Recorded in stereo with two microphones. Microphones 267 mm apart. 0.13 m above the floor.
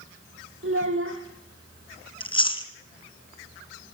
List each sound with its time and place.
0.6 s a child speaking: 50° right (ahead or behind), 3 m
2.2 s chewing: 20° left (ahead or behind), 1.8 m